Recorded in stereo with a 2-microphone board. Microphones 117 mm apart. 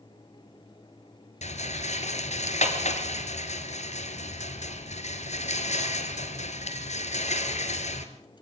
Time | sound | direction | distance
1.4 | a rattle | 75° left (ahead or behind) | 1.9 m